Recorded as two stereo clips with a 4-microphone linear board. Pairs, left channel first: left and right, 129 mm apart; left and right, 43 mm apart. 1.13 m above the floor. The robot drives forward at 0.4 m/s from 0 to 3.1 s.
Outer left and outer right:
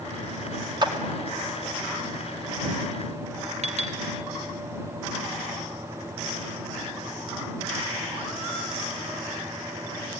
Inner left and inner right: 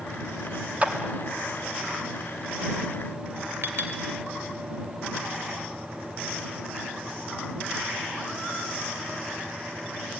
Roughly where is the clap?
Right.